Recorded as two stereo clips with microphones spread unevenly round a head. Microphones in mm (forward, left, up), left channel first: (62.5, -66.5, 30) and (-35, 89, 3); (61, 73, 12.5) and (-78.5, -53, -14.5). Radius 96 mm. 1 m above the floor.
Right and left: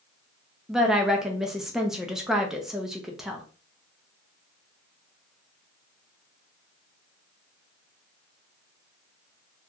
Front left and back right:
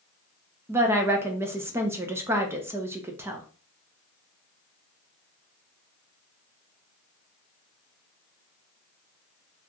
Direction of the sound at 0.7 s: 175° right.